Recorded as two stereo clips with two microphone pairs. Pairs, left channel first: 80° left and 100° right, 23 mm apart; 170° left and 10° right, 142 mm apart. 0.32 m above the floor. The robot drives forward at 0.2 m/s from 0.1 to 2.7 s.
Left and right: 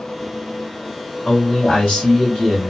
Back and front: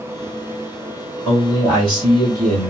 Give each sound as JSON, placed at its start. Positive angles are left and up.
{"t": 1.2, "sound": "a man speaking", "azimuth_deg": 120, "distance_m": 2.5}